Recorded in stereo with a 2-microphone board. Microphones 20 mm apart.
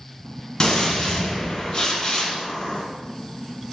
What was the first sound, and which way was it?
A gunshot, 40° left (ahead or behind).